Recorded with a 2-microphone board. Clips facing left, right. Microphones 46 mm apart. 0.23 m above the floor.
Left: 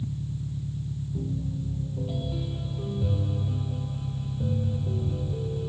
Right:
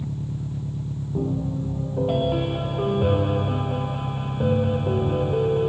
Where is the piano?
55° right (ahead or behind).